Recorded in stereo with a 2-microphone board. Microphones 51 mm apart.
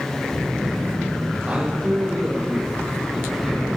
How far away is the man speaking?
About 5 m.